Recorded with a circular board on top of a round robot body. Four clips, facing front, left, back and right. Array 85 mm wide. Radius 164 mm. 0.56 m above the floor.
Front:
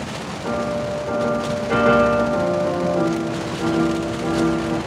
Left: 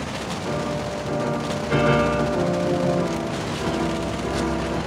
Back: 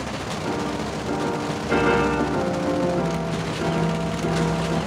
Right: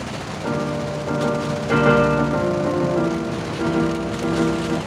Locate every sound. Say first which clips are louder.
0.4 s a piano: right 4 dB, front 5 dB; 85° right, 1.3 m